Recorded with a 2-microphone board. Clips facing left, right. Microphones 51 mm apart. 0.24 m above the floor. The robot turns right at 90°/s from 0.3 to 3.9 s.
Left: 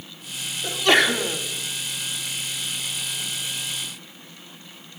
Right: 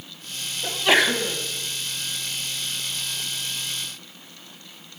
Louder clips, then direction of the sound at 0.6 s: Left 1 dB; 35° right.